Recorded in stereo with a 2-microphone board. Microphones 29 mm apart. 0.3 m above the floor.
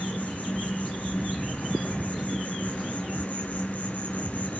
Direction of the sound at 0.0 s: 65° left (ahead or behind).